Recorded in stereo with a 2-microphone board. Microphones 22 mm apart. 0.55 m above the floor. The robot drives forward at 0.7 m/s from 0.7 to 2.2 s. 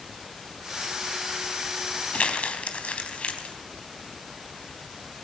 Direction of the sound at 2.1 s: 75° left (ahead or behind).